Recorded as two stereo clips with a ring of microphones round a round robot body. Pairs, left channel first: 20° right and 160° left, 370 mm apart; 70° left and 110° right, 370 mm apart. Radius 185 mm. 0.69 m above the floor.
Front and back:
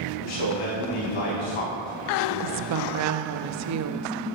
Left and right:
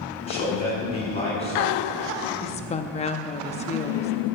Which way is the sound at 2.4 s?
135° left.